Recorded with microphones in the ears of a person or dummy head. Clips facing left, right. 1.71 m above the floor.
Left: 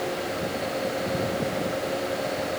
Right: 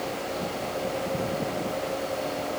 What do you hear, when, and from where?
Only background noise.